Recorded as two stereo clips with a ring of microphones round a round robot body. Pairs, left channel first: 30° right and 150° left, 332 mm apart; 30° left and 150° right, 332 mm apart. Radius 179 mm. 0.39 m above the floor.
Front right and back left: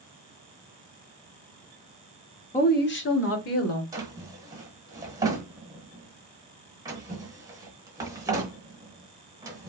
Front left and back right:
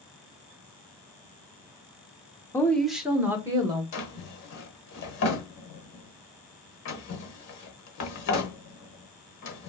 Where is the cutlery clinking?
I don't hear cutlery clinking.